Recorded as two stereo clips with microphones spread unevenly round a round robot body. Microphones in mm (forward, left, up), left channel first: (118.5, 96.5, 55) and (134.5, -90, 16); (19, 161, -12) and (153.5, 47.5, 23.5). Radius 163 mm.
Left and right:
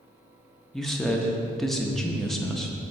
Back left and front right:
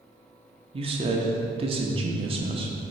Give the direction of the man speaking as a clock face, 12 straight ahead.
1 o'clock.